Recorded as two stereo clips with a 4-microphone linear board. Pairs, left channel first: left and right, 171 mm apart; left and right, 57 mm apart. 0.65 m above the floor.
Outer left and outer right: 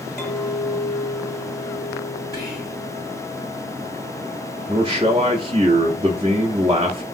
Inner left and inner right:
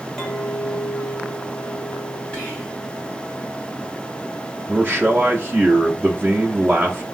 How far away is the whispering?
About 1.9 m.